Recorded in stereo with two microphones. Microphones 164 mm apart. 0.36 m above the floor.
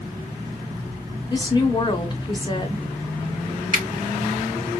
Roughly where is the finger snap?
Right.